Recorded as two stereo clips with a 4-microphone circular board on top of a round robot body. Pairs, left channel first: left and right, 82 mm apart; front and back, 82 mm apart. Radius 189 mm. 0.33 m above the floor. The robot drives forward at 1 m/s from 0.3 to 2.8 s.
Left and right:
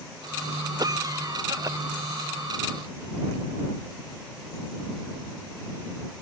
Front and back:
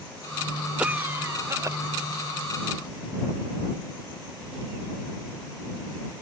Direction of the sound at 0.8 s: 105° right.